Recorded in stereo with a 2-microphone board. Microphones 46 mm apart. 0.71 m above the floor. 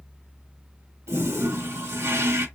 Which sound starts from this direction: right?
A toilet flushing, at 1.1 s.